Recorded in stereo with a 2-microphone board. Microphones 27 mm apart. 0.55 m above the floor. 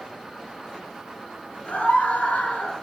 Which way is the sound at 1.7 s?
80° left.